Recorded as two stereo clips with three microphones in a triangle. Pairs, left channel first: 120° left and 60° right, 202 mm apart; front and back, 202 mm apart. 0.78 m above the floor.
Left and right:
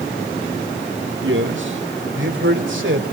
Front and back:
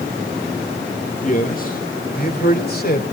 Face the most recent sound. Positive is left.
turn(degrees=-40)